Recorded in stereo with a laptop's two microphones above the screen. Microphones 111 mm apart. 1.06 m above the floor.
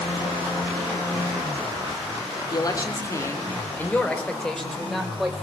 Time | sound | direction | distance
2.5 | a man speaking | 35° left (ahead or behind) | 3.5 m